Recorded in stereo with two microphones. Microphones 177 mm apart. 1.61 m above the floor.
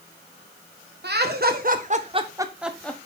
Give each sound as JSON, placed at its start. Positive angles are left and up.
{"t": 1.0, "sound": "laughter", "side_deg": -70, "distance_m": 1.4}